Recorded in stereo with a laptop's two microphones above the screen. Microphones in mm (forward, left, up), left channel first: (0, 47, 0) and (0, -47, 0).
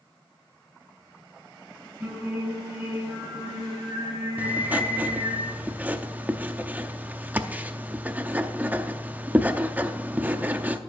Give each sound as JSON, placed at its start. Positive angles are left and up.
{"t": 2.0, "sound": "singing", "side_deg": -15, "distance_m": 5.5}
{"t": 4.4, "sound": "writing", "side_deg": -15, "distance_m": 0.6}